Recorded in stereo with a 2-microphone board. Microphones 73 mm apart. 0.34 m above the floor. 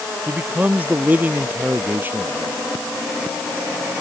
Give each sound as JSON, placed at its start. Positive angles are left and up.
{"t": 0.3, "sound": "a man speaking", "side_deg": -20}